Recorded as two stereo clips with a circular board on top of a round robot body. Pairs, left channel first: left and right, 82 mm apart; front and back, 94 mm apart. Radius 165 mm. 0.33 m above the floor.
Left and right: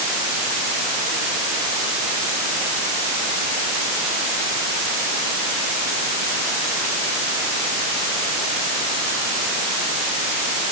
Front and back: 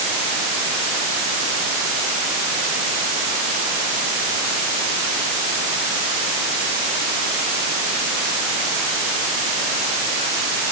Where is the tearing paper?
I don't hear tearing paper.